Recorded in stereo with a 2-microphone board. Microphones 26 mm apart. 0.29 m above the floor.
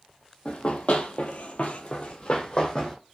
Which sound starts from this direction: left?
Running footsteps, at 0.5 s.